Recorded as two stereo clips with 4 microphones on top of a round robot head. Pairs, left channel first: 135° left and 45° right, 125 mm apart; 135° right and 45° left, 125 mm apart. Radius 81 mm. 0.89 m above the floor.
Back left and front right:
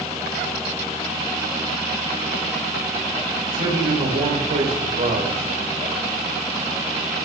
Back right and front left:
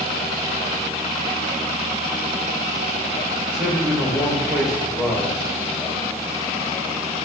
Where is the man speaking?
40° right, 3.5 m.